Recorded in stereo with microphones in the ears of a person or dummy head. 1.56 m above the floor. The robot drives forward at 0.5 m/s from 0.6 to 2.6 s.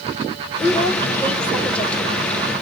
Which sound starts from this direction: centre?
A woman speaking, at 0.6 s.